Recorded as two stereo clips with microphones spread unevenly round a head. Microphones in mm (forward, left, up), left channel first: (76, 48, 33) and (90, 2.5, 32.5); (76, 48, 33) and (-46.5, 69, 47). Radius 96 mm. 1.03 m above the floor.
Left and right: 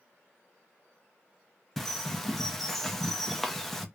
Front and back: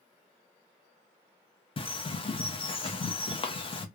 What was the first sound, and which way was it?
A bird, 25° left.